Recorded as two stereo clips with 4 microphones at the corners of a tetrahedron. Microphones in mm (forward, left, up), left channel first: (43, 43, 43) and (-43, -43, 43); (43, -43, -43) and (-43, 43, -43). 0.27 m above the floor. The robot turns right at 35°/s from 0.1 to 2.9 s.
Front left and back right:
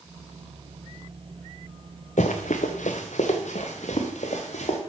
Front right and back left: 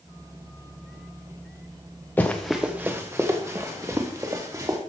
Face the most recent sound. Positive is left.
turn(degrees=70)